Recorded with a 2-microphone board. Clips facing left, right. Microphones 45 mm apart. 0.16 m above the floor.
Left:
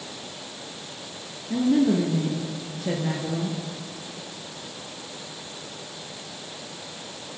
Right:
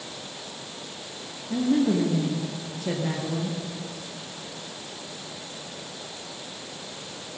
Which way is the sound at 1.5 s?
5° left (ahead or behind).